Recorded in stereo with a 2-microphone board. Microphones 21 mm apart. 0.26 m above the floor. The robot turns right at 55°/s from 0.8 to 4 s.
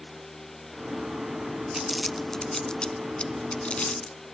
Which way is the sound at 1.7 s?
10° right (ahead or behind).